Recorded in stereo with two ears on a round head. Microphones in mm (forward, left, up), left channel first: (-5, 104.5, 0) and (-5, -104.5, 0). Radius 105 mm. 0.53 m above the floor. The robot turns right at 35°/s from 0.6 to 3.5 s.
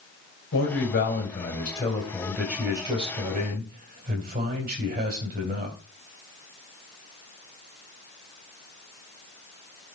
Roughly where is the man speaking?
Behind left.